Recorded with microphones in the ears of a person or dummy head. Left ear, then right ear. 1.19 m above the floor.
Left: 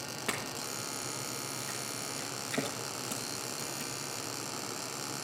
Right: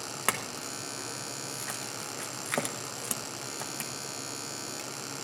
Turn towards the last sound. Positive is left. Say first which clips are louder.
# right 4 dB
turn(degrees=-45)  # may be behind; listen again after turning